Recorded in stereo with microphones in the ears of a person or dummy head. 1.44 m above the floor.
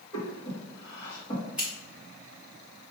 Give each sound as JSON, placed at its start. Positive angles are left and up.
{"t": 0.1, "sound": "breathing", "side_deg": 30, "distance_m": 1.8}
{"t": 1.6, "sound": "scissors", "side_deg": 0, "distance_m": 1.6}